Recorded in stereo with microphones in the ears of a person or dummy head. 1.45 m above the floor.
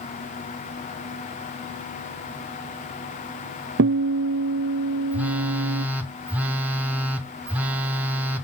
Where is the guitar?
55° right (ahead or behind), 0.5 m.